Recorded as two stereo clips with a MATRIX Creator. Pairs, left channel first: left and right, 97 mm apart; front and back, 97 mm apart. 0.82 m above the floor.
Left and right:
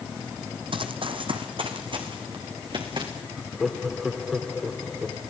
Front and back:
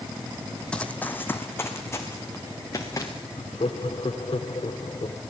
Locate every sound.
0.7 s running footsteps: 80° right, 1.6 m; by 3.1 s 55° right, 4.5 m
3.4 s laughter: straight ahead, 3 m